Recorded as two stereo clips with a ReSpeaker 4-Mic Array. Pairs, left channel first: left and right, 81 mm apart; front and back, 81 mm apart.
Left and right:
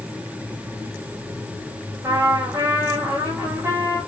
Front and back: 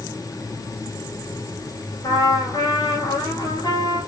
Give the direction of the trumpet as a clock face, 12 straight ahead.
1 o'clock.